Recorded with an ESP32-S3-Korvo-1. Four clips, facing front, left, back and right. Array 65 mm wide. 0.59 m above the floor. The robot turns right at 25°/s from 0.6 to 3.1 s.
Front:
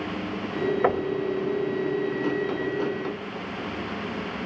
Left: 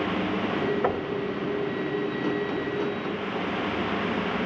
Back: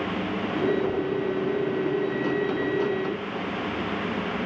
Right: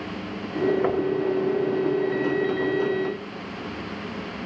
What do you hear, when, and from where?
0.8 s knocking: 5° left, 2.5 m; by 1.1 s 10° left, 2.5 m